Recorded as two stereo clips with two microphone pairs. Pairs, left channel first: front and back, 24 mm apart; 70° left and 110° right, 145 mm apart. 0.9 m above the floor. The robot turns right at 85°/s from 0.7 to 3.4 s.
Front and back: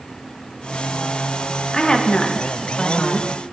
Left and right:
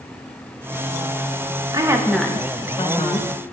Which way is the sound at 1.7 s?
60° right.